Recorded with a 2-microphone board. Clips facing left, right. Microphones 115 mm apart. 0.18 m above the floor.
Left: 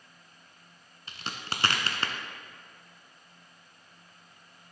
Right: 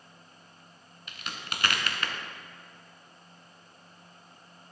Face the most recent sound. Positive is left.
turn(degrees=35)  # may be behind; listen again after turning